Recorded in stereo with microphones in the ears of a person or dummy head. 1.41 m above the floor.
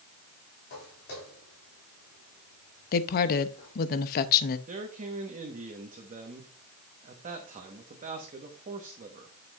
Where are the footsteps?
60° left (ahead or behind), 4 m; by 3.7 s 40° left (ahead or behind), 5 m.